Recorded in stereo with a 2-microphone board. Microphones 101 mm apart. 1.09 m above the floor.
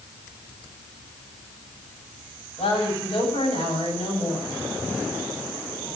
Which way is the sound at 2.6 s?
75° left (ahead or behind).